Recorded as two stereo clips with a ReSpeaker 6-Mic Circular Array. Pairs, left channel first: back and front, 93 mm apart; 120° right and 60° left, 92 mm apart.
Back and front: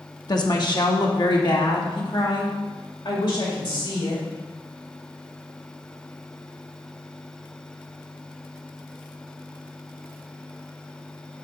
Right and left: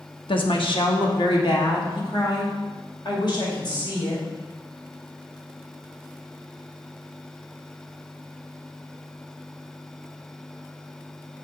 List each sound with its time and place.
0.3 s a woman speaking: 135° right, 1.0 m; by 4.2 s 155° right, 3 m